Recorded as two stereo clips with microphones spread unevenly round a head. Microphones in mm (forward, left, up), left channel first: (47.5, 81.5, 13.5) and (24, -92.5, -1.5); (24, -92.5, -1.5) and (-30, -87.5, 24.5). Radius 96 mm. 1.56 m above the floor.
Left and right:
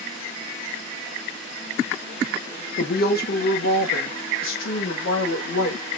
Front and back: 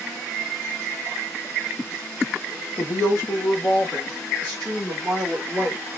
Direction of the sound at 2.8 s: 40° left.